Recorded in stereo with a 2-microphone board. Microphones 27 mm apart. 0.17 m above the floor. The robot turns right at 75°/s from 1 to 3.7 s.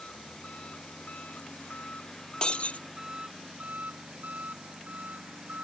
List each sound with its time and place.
0.0 s an engine running: 55° left; by 5.7 s 100° right
2.4 s breaking glass: 35° left; by 2.8 s 70° left